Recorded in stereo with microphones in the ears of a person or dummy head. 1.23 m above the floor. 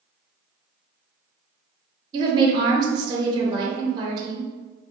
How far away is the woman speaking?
About 0.8 m.